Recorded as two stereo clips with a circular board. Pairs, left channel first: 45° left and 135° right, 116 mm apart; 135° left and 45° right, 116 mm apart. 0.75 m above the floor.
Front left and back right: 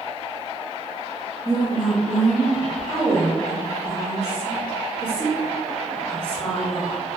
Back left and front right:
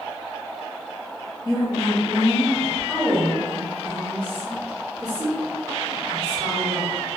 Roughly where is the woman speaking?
Left.